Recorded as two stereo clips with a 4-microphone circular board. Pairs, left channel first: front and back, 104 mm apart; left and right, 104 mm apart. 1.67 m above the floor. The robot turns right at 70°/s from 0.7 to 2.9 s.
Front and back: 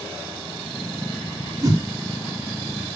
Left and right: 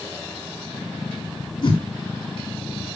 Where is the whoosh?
120° left, 3 m; by 1.8 s 135° left, 3 m.